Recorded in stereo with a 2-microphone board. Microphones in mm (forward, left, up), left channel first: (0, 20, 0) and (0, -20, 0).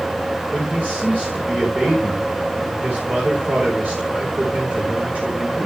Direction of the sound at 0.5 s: 45° right (ahead or behind).